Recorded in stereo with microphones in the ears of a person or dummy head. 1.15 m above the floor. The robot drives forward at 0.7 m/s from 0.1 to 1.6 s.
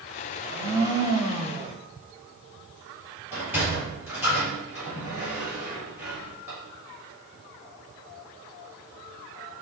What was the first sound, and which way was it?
A blender, 25° right (ahead or behind).